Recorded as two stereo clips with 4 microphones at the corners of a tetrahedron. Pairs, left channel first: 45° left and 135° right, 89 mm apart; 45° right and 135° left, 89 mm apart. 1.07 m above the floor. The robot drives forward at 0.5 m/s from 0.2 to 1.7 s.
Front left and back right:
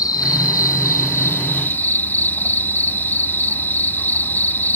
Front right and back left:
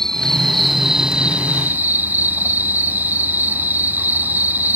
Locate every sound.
0.0 s an insect: 35° left; by 4.8 s 90° left